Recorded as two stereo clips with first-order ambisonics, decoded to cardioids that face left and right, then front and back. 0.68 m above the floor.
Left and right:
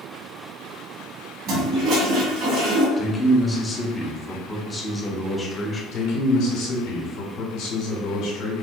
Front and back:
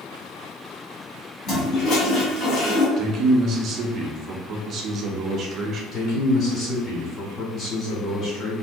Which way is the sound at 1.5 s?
55° right.